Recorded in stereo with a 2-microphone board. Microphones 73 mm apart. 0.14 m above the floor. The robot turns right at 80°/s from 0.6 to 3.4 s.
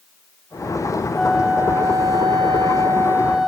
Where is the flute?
170° left; by 3.5 s 10° right.